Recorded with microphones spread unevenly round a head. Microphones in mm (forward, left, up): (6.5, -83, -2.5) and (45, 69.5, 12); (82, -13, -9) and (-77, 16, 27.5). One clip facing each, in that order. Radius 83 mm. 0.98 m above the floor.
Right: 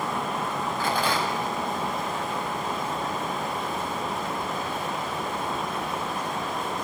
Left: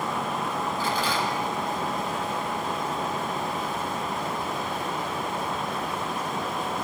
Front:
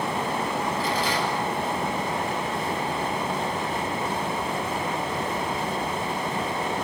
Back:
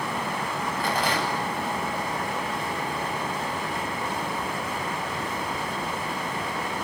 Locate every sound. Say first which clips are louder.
0.8 s a rattle: right 3 dB, front 1 dB; 150° right, 8.5 m